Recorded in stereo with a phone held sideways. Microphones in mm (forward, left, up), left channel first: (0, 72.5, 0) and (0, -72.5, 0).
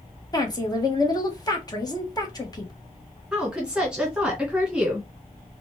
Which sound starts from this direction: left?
A woman speaking, at 0.3 s.